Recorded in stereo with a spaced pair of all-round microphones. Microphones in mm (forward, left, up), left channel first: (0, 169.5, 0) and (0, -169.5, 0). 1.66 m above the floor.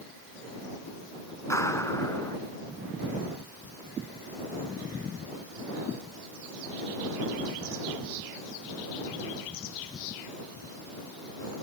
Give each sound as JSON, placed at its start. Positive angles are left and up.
{"t": 1.5, "sound": "a clap", "side_deg": 10}